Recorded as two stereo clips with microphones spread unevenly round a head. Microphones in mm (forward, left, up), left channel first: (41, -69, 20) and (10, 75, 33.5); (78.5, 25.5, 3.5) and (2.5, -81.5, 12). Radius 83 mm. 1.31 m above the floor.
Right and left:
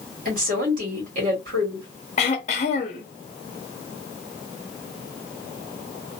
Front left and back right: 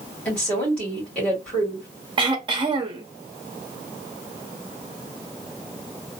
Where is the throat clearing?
115° right, 0.8 m.